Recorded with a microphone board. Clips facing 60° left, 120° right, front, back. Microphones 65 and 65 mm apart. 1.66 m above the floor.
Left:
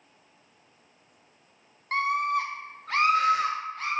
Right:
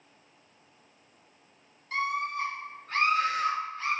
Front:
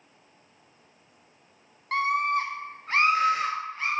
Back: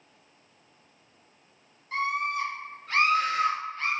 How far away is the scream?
About 0.7 m.